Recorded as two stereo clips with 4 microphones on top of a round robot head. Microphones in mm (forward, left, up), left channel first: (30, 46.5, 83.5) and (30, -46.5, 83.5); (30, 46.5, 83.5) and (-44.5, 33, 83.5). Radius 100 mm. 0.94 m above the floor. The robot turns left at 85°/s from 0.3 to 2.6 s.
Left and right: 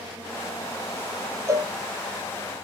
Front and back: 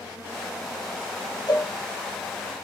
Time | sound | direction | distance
1.5 | a cowbell | 35° right | 0.9 m